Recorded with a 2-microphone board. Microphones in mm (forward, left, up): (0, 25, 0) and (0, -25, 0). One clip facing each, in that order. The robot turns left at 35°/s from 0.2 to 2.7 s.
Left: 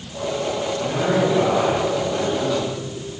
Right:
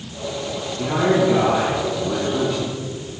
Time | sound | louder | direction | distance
0.8 | a man speaking | right 4 dB | 75° right | 5.5 m